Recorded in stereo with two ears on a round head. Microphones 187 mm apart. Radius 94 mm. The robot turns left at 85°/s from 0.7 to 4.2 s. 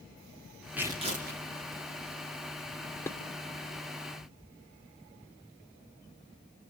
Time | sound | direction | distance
0.8 | tearing paper | 5° right | 3 m
3.1 | dishes clattering | 15° left (ahead or behind) | 1.8 m